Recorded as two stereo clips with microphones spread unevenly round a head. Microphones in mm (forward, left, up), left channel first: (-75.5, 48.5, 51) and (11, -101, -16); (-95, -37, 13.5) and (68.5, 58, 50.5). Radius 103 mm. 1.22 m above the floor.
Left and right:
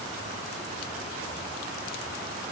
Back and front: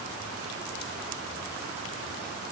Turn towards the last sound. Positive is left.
No sound to turn to.